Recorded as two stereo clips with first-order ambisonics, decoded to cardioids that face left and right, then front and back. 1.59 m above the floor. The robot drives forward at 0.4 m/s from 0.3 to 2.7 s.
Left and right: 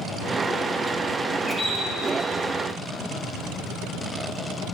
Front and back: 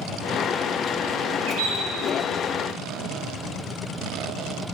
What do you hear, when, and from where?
1.5 s a bird: 175° left, 2.5 m